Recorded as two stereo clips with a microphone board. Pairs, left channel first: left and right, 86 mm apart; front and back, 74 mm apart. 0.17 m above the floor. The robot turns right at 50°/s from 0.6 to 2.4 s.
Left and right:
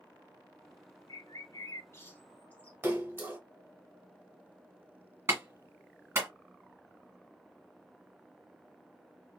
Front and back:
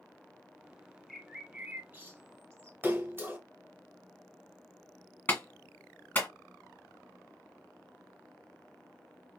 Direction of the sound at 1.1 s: 90° left.